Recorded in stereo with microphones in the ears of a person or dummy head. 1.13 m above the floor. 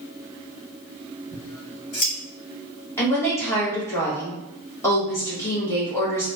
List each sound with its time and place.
1.3 s scissors: 40° left (ahead or behind), 1.8 m
3.0 s a woman speaking: 15° left (ahead or behind), 1.2 m